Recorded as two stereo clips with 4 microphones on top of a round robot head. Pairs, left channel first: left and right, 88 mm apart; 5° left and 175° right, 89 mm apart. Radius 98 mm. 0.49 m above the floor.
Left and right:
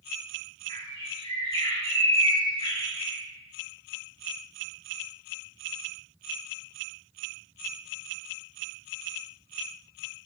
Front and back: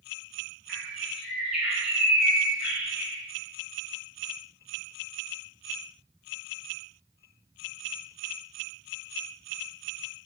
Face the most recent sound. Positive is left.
turn(degrees=100)